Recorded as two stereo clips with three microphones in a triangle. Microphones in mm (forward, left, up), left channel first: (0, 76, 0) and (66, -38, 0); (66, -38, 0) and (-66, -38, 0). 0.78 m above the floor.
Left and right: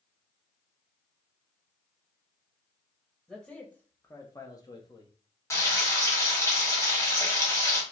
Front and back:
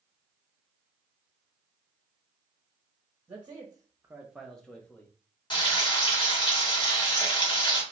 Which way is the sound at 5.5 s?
50° left.